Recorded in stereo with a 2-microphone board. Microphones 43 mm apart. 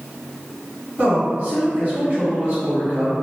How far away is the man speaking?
About 1.7 m.